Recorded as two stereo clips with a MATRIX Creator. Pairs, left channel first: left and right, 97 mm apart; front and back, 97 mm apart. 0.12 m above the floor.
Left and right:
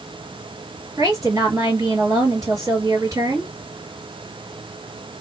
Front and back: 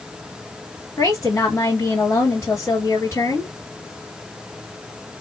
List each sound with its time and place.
1.0 s a woman speaking: 55° right, 2.5 m